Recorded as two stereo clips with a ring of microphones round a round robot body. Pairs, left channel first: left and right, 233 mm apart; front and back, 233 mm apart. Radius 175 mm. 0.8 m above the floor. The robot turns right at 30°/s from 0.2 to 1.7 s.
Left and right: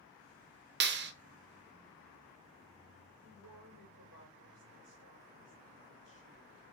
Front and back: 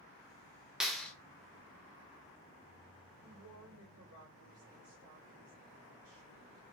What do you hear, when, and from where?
0.8 s a clap: 95° right, 0.5 m; by 1.1 s 85° right, 0.5 m
3.2 s a woman speaking: 140° right, 2.5 m